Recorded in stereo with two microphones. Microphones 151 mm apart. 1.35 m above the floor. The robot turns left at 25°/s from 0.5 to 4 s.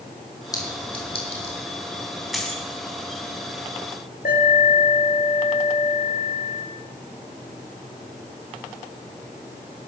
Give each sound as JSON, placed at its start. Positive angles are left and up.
{"t": 0.5, "sound": "a clink", "side_deg": 25, "distance_m": 3.0}
{"t": 2.3, "sound": "a dropped coin", "side_deg": 0, "distance_m": 3.5}
{"t": 4.2, "sound": "an alarm", "side_deg": 80, "distance_m": 6.5}